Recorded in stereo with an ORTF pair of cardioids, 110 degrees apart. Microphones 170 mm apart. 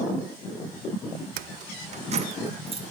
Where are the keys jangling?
65° right, 0.6 m; by 2.8 s 35° right, 2 m.